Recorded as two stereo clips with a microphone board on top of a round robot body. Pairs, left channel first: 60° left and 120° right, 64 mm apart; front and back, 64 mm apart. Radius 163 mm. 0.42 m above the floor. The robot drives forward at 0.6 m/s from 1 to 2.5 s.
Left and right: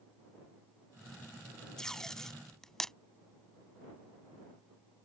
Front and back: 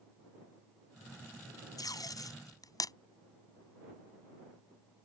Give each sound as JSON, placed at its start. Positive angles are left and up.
{"t": 1.8, "sound": "tape being pulled", "azimuth_deg": -20}